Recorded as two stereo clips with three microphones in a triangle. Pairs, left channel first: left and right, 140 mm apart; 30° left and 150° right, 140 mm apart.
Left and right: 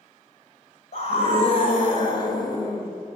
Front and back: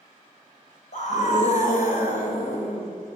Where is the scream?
55° left, 3 m; by 2.9 s 25° left, 2.5 m.